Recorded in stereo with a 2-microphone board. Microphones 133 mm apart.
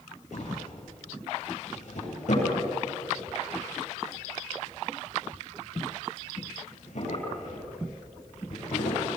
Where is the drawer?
65° left (ahead or behind), 10 m.